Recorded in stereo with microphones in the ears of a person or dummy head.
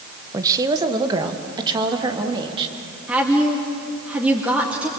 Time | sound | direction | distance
0.3 | a woman speaking | 15° right (ahead or behind) | 1.1 m
3.1 | a woman speaking | 5° right (ahead or behind) | 2 m